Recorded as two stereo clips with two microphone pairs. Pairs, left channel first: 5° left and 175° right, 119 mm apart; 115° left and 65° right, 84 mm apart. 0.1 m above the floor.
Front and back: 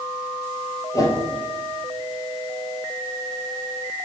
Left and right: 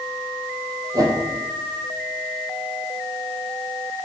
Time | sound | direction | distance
0.9 | a whoosh | 45° right | 2.0 m